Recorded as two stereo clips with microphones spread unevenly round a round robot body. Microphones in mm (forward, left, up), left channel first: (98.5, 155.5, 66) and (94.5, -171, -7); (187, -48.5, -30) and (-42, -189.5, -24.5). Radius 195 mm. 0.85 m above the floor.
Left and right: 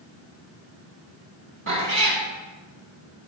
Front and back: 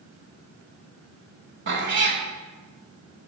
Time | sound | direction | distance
1.7 | a cat meowing | 150° right | 0.9 m